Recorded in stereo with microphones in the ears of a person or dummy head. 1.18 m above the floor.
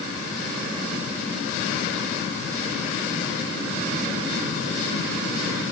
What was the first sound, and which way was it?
Only background noise.